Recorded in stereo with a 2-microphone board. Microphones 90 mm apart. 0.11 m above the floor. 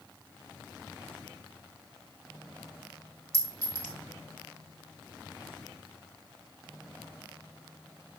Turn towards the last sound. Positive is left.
turn(degrees=-40)  # may be behind; listen again after turning